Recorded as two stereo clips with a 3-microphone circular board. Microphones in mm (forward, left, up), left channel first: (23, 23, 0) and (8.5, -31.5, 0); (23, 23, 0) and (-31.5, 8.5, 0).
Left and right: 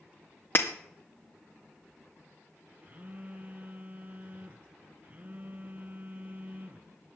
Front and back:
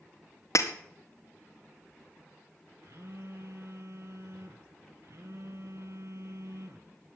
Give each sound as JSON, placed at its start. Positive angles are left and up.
{"t": 0.6, "sound": "breaking glass", "azimuth_deg": 30, "distance_m": 1.9}
{"t": 2.8, "sound": "a phone buzzing", "azimuth_deg": -160, "distance_m": 1.0}